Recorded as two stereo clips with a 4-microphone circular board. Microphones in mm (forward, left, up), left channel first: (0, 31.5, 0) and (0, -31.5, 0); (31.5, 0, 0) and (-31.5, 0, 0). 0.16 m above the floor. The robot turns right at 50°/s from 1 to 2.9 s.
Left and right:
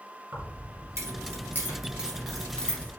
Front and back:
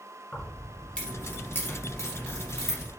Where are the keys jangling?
65° right, 1.6 m; by 2.9 s 30° left, 1.6 m.